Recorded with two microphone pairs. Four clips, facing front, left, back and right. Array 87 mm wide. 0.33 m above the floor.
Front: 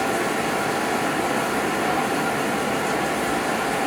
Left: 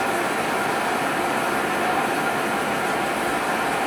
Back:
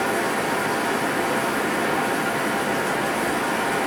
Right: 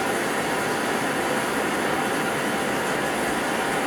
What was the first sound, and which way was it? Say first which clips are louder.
Running water: left 2 dB, even; 90° left.